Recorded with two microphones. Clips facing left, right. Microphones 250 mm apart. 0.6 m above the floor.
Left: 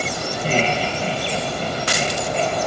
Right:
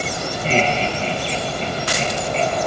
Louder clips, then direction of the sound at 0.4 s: Right 1 dB; 10° left (ahead or behind).